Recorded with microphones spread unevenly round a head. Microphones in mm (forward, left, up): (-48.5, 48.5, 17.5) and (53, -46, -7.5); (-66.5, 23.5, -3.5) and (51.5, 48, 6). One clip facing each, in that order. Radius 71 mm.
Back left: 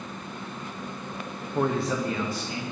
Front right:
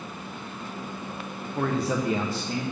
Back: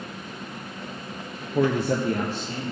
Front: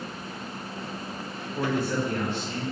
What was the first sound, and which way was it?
A man speaking, 150° right.